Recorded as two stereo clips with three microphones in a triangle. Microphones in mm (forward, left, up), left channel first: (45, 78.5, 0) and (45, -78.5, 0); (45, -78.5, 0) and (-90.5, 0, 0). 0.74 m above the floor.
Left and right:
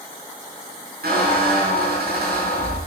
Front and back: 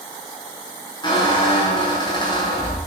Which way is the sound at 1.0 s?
95° right.